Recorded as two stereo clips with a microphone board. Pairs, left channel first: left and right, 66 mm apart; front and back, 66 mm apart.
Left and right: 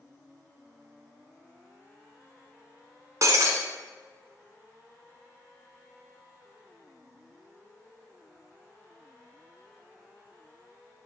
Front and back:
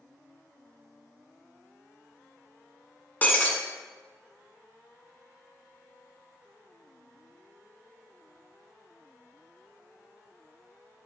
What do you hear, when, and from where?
3.2 s breaking glass: 60° right, 1.2 m